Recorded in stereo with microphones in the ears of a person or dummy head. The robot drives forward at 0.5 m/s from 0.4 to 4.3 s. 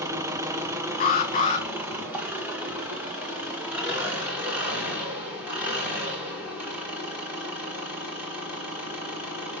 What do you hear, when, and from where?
0.0 s an engine running: 15° right (ahead or behind), 1.3 m; by 9.6 s 5° right (ahead or behind), 3 m
1.0 s an alarm: 45° left (ahead or behind), 2.5 m; by 1.7 s 40° left (ahead or behind), 2.5 m